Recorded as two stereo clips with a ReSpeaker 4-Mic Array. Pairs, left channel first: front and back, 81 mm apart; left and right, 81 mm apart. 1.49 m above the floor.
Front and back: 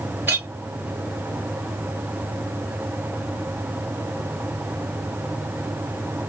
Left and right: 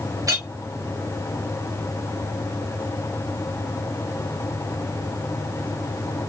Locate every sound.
0.3 s a clink: 120° right, 1.3 m